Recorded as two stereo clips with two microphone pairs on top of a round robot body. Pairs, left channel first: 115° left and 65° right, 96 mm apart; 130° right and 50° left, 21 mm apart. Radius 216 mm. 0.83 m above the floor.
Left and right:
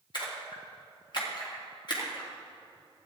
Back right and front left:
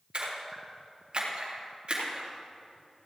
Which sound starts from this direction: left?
A splash, at 0.1 s.